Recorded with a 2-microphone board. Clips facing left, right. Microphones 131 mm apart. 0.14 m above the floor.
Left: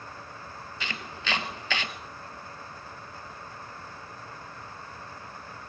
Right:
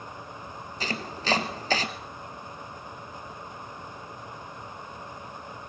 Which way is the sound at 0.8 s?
40° right (ahead or behind).